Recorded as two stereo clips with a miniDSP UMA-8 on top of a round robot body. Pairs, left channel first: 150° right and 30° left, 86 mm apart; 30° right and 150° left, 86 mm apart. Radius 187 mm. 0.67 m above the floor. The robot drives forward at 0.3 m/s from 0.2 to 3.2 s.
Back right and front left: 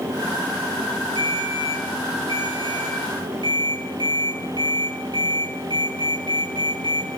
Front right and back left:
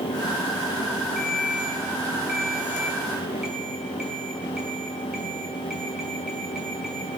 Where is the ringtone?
60° left, 7.5 m; by 7.1 s 65° left, 7 m.